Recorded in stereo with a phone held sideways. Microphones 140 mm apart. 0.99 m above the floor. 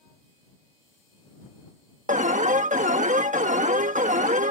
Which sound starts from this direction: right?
An alarm, at 2.1 s.